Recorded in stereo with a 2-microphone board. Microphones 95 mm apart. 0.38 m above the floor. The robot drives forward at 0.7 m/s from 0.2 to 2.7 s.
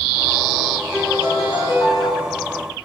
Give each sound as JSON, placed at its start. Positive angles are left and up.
{"t": 0.9, "sound": "a piano", "side_deg": 65, "distance_m": 2.5}